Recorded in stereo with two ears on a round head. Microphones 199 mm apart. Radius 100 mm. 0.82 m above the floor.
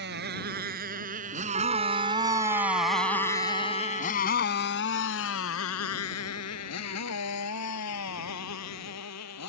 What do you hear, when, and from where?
0.0 s a motorcycle: 50° right (ahead or behind); by 9.5 s 90° left
1.5 s a trumpet: 30° right (ahead or behind)